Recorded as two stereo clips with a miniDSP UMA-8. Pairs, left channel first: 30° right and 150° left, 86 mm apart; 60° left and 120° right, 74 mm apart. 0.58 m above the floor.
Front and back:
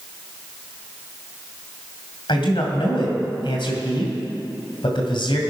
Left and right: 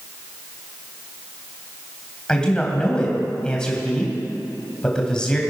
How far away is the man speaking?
About 2.5 m.